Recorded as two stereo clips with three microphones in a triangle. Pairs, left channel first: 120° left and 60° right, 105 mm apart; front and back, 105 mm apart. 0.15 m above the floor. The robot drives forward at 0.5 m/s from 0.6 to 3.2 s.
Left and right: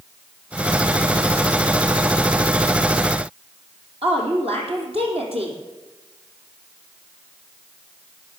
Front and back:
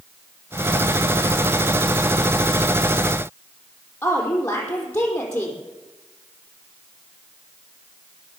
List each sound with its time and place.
4.0 s a woman speaking: 70° right, 5 m